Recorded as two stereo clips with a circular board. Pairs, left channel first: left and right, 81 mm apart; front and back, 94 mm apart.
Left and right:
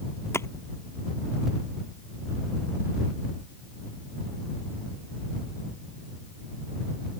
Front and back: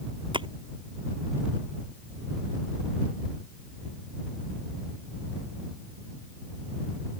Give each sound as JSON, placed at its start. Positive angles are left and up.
{"t": 0.3, "sound": "a splash", "azimuth_deg": 150}